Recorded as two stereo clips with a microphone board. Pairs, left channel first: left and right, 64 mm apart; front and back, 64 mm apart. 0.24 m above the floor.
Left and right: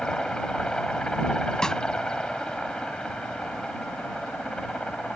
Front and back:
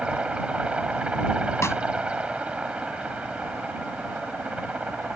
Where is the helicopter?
145° left.